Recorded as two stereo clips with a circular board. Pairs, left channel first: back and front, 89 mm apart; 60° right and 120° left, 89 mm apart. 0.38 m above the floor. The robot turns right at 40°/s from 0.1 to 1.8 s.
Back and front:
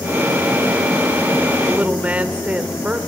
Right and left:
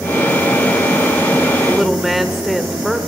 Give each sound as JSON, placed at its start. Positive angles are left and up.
{"t": 1.7, "sound": "a woman speaking", "azimuth_deg": 25, "distance_m": 1.2}